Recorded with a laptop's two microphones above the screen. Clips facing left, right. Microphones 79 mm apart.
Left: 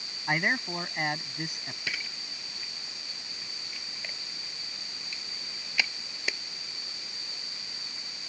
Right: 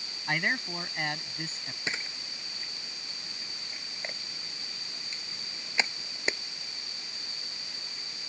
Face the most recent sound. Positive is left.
turn(degrees=-25)  # may be behind; listen again after turning